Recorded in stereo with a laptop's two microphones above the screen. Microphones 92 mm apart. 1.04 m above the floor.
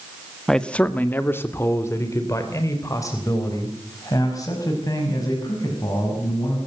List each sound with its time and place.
0.5 s a man speaking: 5° left (ahead or behind), 1.3 m; by 6.6 s 40° left (ahead or behind), 8.5 m